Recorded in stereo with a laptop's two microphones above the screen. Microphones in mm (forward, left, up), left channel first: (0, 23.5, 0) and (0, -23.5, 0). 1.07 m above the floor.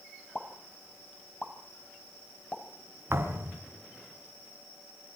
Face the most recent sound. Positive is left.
turn(degrees=-60)  # may be behind; listen again after turning